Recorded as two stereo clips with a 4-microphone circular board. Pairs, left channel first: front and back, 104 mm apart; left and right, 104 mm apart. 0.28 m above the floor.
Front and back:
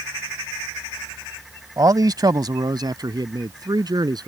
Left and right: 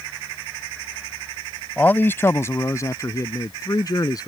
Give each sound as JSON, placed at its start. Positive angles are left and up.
{"t": 1.8, "sound": "a man speaking", "azimuth_deg": 155}